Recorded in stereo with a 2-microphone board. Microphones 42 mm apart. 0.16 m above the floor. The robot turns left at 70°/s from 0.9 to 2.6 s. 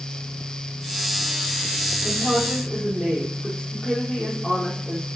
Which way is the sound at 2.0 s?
60° left.